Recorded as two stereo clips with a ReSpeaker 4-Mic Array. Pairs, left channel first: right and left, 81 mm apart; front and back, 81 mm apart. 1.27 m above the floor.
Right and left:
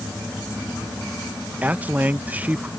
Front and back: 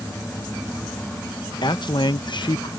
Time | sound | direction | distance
1.6 | a man speaking | 20° left | ?